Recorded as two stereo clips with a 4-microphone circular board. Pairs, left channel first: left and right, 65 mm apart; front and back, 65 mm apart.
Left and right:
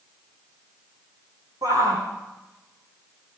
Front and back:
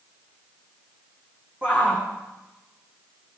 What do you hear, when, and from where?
1.6 s a shout: 110° right, 9 m